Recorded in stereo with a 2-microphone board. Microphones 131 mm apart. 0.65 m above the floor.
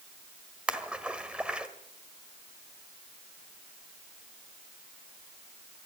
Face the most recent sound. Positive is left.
turn(degrees=-5)  # may be behind; listen again after turning